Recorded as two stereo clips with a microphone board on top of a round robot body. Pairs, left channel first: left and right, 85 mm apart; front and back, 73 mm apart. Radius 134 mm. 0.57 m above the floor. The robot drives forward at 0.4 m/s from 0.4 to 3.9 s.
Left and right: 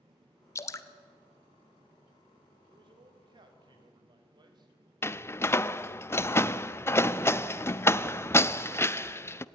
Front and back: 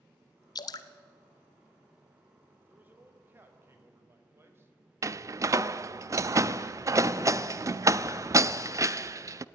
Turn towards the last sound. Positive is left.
turn(degrees=145)